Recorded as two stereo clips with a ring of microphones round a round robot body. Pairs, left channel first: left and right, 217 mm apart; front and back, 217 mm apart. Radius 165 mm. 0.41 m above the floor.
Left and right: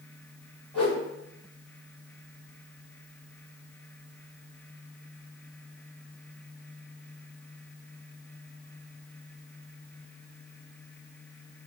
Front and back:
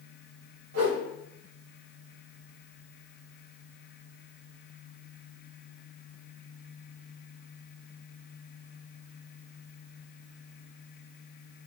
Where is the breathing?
I don't hear breathing.